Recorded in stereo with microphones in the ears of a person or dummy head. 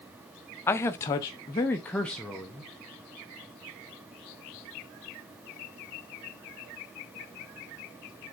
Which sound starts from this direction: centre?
A man speaking, at 0.7 s.